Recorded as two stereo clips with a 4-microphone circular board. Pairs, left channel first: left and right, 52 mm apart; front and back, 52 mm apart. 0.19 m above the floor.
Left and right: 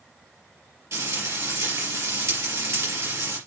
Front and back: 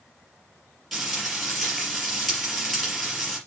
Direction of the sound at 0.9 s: 90° right.